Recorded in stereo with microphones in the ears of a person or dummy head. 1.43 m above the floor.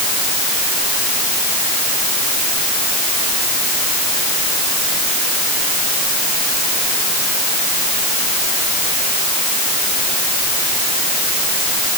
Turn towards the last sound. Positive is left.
No sound to turn to.